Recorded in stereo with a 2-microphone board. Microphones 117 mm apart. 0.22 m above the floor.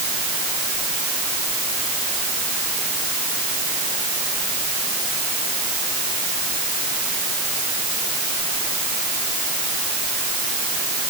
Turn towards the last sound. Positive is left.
No sound to turn to.